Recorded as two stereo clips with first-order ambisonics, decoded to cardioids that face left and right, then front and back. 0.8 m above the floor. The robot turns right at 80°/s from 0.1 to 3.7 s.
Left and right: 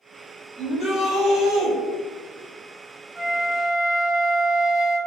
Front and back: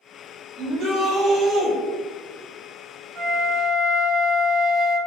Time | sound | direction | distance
0.6 | a shout | 175° left | 1.0 m
3.1 | a flute | 165° right | 0.6 m